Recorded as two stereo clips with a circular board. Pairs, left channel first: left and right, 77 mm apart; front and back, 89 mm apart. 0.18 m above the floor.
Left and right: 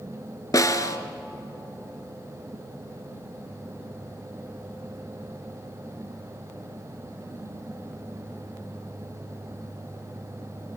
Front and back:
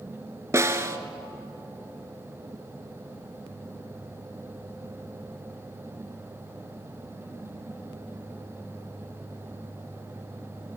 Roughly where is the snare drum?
Behind left.